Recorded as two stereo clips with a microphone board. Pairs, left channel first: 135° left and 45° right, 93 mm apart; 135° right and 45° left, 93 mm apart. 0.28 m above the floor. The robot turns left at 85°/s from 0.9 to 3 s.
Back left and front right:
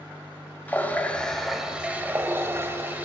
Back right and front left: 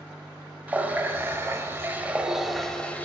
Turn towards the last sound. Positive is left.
turn(degrees=-85)